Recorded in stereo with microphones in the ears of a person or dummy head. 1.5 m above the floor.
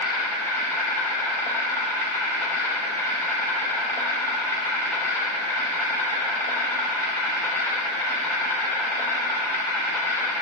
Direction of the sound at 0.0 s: 15° left (ahead or behind).